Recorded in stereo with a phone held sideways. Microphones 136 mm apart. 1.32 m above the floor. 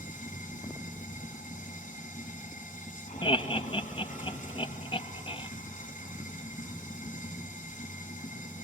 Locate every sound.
0.0 s running water: 70° left (ahead or behind), 8.5 m
3.2 s laughter: 40° left (ahead or behind), 1.9 m